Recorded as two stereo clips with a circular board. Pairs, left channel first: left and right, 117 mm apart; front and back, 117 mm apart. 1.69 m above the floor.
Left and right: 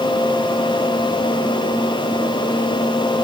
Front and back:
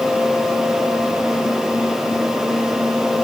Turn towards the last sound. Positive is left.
No sound to turn to.